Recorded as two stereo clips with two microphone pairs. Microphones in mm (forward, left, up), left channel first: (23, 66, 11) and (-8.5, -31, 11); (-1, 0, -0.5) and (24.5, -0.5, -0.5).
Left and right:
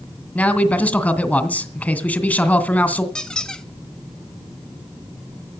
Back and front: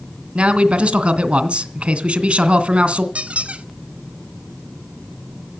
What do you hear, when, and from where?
0.3 s a man speaking: straight ahead, 2.0 m
3.1 s a squeak: 10° right, 1.0 m